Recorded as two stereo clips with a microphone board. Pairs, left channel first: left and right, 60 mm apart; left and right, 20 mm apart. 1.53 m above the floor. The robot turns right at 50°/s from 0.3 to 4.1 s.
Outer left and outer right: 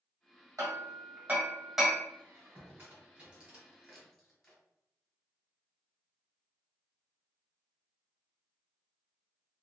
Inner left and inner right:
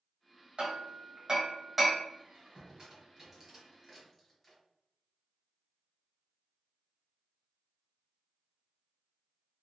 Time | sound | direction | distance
0.6 | hammering | 55° right (ahead or behind) | 1.1 m
2.2 | a squeak | 40° right (ahead or behind) | 1.5 m